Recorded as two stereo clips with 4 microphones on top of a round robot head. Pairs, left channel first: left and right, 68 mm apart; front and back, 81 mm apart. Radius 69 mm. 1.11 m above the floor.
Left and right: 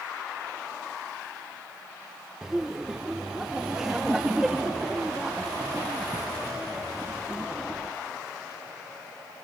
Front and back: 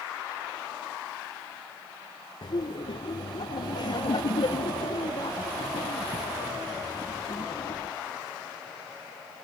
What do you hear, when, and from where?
2.4 s laughter: 10° right, 1.1 m